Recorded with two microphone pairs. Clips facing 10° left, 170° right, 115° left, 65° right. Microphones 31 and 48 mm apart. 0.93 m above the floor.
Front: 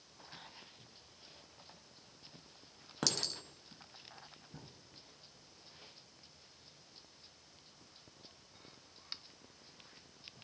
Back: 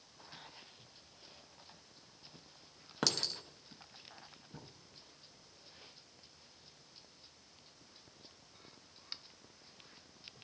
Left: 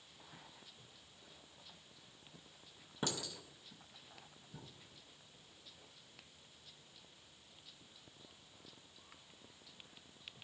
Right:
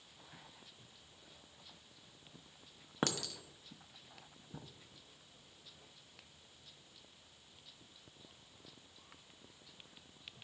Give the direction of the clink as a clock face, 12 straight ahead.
3 o'clock.